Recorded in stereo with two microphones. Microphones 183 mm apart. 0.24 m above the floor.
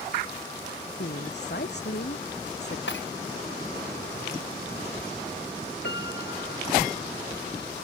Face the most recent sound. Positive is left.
turn(degrees=75)  # may be behind; listen again after turning